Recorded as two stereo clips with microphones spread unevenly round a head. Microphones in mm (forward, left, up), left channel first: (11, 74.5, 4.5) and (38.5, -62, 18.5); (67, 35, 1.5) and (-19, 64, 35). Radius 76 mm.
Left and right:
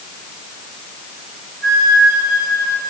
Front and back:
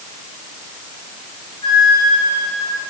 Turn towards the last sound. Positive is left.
turn(degrees=-90)